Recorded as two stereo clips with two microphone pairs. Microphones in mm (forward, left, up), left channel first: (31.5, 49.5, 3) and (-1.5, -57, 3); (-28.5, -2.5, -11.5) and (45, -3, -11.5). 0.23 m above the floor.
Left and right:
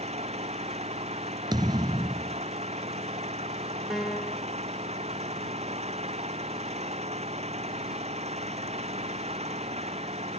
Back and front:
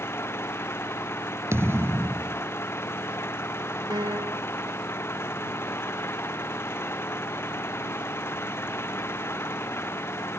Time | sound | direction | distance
0.0 | an engine running | 125° right | ?
1.5 | a thud | 55° right | ?
3.9 | a piano | 20° right | ?